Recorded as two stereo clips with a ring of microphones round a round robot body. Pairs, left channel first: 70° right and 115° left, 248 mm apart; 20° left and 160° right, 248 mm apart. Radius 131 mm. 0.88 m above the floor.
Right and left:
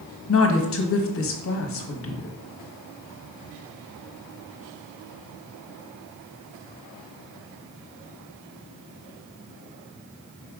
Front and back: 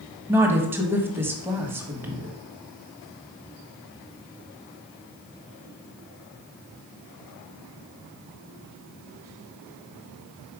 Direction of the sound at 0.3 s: 80° right.